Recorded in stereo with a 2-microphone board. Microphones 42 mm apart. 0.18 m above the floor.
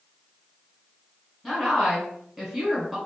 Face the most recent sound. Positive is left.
turn(degrees=-10)  # may be behind; listen again after turning